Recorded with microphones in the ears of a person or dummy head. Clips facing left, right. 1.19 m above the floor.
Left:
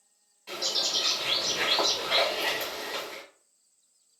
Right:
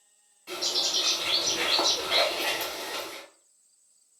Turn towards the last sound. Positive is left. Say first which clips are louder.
# even
turn(degrees=-5)  # may be behind; listen again after turning